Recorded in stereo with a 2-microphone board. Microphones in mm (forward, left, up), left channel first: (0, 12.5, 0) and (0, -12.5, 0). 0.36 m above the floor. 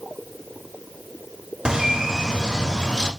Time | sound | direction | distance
1.6 | a bird | 30° right (ahead or behind) | 0.7 m